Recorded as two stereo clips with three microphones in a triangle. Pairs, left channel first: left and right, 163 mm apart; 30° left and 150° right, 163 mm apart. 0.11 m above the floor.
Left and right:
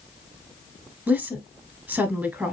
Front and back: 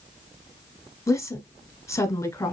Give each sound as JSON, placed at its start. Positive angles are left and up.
{"t": 1.1, "sound": "a woman speaking", "azimuth_deg": -20, "distance_m": 1.3}